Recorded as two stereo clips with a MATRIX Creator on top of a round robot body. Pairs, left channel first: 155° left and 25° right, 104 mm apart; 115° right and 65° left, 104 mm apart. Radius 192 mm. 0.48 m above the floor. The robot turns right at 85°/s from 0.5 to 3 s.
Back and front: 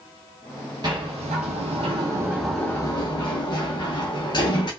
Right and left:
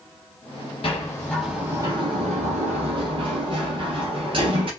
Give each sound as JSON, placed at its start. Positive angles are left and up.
{"t": 0.8, "sound": "a sliding door", "azimuth_deg": -75, "distance_m": 0.5}